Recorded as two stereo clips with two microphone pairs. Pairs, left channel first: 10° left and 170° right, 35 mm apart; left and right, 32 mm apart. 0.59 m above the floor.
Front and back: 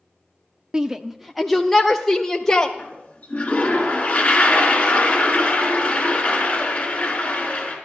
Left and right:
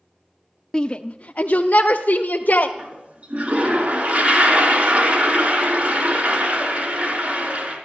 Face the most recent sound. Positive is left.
turn(degrees=-45)